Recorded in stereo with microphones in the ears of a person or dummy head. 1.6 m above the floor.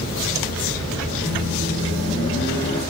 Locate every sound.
1.2 s a microwave: 35° left (ahead or behind), 3.5 m